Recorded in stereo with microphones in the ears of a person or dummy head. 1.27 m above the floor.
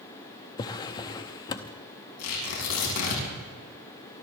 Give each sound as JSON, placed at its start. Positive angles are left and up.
{"t": 0.6, "sound": "a drawer", "side_deg": 20, "distance_m": 0.7}
{"t": 2.2, "sound": "tearing paper", "side_deg": 85, "distance_m": 6.5}